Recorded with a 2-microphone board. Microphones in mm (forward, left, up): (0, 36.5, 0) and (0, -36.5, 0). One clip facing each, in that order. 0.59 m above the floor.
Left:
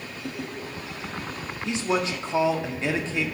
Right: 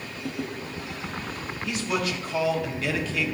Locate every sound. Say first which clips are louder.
1.6 s a man speaking: left 3 dB; 25° left (ahead or behind), 0.9 m